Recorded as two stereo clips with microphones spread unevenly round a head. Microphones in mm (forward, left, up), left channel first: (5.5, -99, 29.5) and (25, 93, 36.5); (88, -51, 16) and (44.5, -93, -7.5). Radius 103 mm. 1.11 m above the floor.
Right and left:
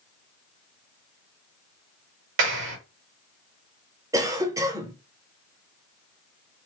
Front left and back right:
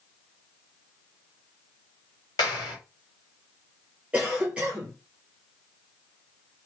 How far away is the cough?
About 0.8 m.